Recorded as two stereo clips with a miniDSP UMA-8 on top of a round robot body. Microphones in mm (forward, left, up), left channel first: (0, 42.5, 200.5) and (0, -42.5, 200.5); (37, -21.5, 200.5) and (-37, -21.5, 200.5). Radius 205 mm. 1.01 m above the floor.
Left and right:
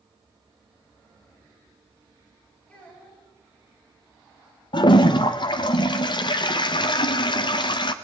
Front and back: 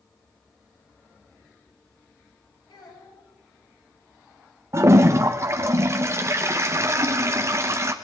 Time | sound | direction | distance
2.7 | a child speaking | 15° left | 8.5 m
4.7 | a toilet flushing | 125° left | 0.5 m